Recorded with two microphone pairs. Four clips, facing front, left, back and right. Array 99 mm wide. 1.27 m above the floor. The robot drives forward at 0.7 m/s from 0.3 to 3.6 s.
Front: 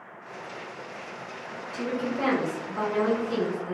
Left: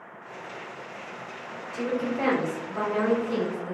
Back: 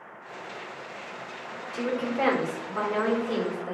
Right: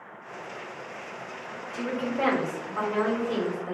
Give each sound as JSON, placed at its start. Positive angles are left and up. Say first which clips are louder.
{"t": 1.7, "sound": "a woman speaking", "louder": "left 2 dB, back 2 dB", "azimuth_deg": 180, "distance_m": 1.6}